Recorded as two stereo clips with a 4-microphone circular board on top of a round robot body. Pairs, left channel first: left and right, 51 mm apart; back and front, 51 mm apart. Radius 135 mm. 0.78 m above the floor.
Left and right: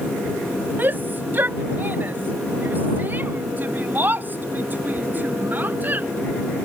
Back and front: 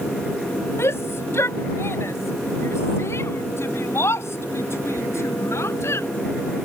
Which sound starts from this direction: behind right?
A shout, at 0.8 s.